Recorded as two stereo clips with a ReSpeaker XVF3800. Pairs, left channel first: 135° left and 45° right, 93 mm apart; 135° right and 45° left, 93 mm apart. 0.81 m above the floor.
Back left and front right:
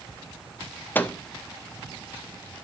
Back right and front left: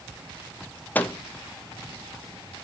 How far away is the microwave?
About 0.6 m.